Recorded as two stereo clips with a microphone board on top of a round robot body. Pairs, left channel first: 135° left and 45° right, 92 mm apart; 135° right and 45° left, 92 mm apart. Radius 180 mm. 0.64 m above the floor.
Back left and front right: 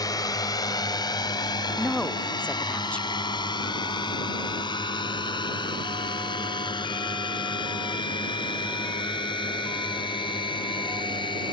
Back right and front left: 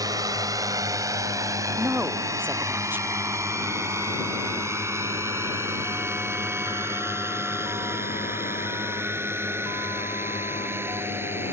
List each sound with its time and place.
0.0 s a drone: 90° left; by 11.5 s 110° left
1.8 s a woman speaking: 75° left